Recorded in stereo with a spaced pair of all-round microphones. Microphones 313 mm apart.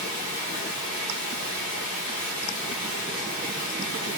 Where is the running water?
25° right (ahead or behind), 1.2 m.